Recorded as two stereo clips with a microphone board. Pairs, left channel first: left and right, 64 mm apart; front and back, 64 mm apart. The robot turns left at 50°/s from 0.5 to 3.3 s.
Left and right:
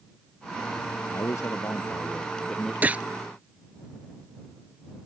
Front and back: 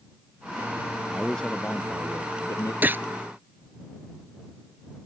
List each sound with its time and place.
1.1 s a man speaking: 90° left; by 2.7 s 10° left
2.8 s a gunshot: 140° right; by 3.0 s 150° right